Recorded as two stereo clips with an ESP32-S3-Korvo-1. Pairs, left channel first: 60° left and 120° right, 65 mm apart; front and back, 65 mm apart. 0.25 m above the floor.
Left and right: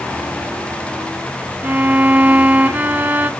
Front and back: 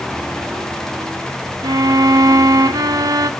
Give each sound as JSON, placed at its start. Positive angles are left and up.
{"t": 1.6, "sound": "a violin", "azimuth_deg": 175, "distance_m": 0.5}